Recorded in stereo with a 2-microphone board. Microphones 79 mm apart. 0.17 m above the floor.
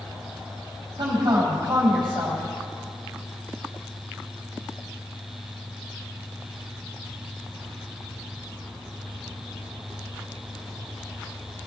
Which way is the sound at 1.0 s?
60° right (ahead or behind).